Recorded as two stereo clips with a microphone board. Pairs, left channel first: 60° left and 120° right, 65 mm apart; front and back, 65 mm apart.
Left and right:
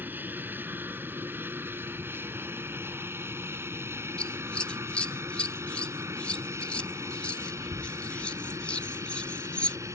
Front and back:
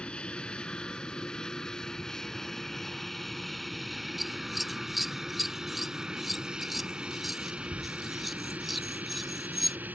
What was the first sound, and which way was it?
An aircraft, 70° right.